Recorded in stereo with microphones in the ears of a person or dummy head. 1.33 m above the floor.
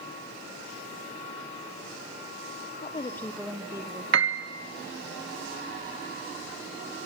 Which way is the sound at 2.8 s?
35° left (ahead or behind).